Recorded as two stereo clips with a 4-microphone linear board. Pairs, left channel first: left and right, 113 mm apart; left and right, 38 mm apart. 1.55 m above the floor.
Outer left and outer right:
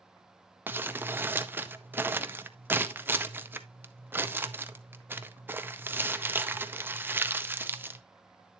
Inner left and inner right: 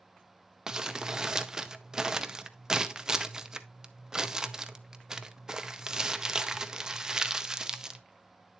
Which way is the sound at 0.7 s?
20° right (ahead or behind).